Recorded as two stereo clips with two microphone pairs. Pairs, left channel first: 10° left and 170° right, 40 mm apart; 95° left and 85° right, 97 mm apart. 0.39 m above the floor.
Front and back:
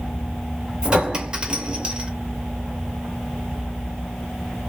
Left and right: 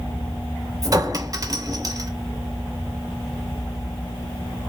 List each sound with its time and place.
0.8 s a clink: 115° right, 0.6 m